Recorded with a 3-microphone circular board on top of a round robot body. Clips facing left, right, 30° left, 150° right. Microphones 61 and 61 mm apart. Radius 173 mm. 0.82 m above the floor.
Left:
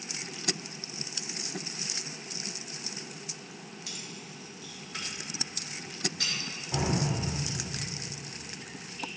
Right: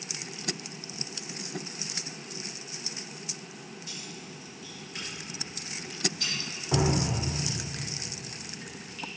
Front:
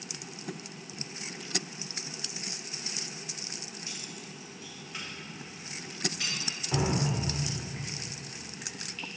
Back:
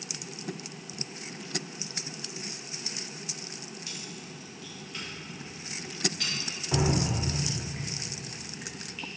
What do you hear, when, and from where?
3.9 s keys jangling: 95° left, 1.1 m; by 6.3 s 115° left, 2 m
6.7 s dripping: 70° right, 0.7 m